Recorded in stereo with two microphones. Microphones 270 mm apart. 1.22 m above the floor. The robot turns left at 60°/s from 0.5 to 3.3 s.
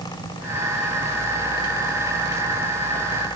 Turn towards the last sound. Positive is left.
No sound to turn to.